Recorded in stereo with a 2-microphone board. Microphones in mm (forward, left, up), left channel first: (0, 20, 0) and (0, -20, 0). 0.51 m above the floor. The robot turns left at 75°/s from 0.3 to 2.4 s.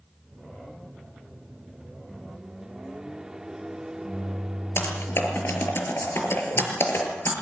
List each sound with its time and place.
2.1 s a microwave: 5° right (ahead or behind), 0.6 m; by 5.8 s 15° right (ahead or behind), 0.6 m
4.8 s typing on a keyboard: 75° left (ahead or behind), 5 m